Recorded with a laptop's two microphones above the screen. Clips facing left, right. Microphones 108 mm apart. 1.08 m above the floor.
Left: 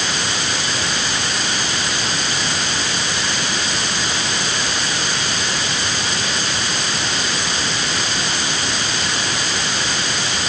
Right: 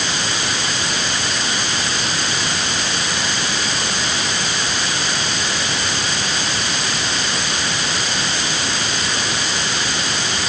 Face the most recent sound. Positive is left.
No sound to turn to.